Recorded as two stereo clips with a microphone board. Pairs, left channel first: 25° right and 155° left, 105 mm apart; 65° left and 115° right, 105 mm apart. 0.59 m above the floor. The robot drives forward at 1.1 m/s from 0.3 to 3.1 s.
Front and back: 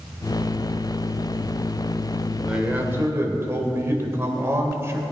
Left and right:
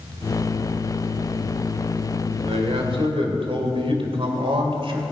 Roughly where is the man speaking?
Behind right.